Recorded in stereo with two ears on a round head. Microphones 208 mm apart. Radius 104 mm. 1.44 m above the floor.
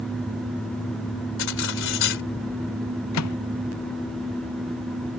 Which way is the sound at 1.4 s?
55° left (ahead or behind).